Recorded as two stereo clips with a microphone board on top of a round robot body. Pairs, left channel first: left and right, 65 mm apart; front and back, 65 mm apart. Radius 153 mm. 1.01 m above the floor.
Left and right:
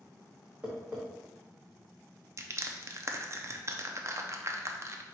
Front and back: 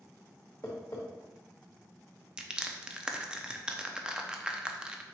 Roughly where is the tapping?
Ahead.